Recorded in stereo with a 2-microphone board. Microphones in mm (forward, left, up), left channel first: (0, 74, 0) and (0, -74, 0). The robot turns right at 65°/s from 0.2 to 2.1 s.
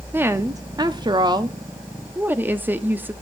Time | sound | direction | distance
0.1 | a woman speaking | 15° right (ahead or behind) | 0.6 m